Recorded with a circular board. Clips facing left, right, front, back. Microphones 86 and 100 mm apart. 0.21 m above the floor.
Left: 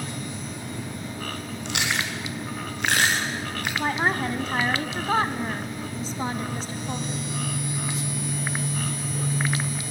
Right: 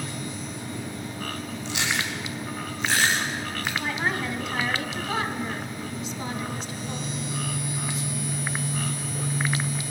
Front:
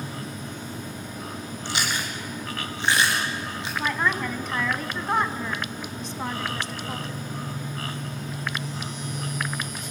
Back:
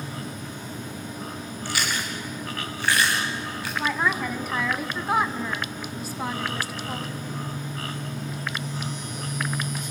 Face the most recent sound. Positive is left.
turn(degrees=100)